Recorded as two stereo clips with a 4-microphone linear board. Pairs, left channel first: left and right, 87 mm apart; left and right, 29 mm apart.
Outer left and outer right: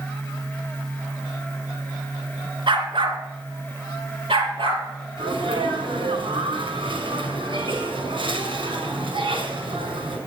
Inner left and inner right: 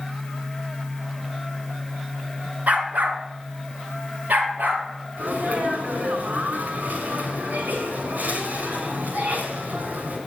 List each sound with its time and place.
2.7 s a dog barking: 70° right (ahead or behind), 2.5 m; by 4.8 s 80° right, 5 m
5.2 s a sneeze: 75° right (ahead or behind), 5.5 m